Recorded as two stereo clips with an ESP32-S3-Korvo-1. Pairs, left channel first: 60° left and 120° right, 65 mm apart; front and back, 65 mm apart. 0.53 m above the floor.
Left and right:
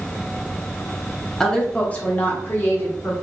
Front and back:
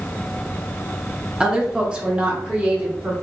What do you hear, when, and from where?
1.4 s a woman speaking: 130° left, 0.8 m; by 3.1 s 110° left, 1.5 m